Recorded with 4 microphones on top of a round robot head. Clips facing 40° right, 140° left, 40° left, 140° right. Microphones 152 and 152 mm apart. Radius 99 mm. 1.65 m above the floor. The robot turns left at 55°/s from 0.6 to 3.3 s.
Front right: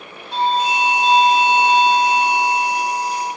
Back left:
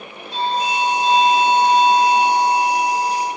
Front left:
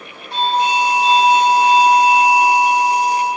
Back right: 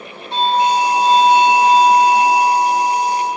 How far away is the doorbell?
About 1.4 m.